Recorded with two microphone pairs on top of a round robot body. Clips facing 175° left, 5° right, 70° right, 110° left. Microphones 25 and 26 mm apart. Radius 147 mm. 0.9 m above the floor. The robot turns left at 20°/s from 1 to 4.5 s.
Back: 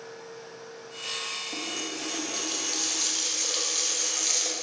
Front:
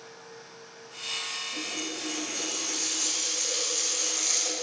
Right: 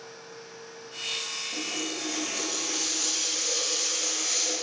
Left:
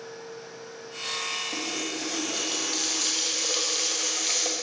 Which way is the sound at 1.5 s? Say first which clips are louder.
Back 1 dB, left 1 dB; 155° left.